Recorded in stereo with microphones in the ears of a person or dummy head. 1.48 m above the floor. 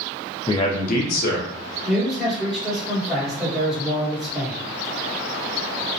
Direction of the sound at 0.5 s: 20° left (ahead or behind).